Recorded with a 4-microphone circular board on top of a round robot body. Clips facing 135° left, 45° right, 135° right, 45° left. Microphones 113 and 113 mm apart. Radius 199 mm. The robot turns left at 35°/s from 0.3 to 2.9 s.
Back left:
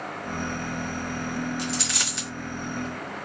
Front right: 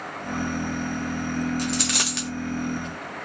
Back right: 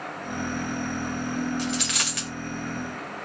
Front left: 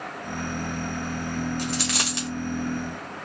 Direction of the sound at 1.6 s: Straight ahead.